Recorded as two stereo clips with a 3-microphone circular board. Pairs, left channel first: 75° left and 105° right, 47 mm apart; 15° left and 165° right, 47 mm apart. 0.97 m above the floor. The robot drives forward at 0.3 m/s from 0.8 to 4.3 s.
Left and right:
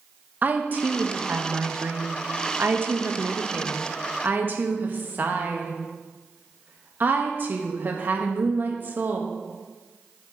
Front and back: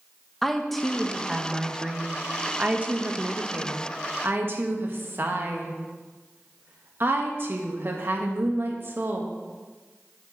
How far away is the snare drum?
I don't hear a snare drum.